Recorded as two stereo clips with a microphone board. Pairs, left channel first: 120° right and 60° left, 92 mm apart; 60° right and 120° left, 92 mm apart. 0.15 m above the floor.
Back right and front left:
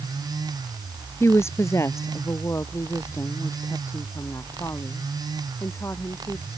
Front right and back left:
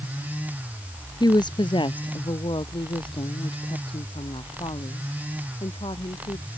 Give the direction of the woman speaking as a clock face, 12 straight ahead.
2 o'clock.